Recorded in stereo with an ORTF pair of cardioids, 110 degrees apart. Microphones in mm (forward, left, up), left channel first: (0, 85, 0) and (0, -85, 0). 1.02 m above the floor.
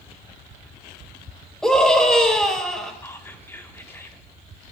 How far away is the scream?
About 4.5 m.